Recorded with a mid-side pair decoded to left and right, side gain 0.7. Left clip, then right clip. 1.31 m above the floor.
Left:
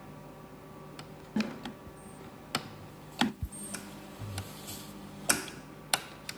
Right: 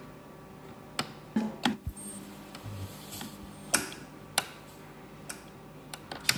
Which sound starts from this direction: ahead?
A snare drum, at 1.4 s.